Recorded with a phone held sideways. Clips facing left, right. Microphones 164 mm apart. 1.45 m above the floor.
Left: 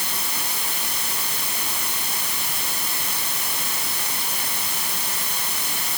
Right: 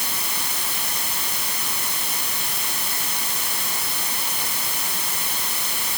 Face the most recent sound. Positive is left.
No sound to turn to.